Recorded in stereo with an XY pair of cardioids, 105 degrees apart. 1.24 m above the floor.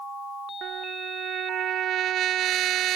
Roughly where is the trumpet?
Right.